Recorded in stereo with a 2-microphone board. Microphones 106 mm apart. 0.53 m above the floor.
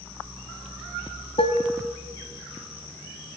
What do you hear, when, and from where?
1.4 s dishes clattering: 80° left, 2 m